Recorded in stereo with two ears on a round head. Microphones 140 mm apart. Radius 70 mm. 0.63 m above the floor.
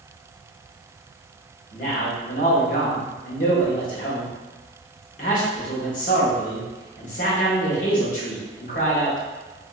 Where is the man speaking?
55° left (ahead or behind), 1.3 m.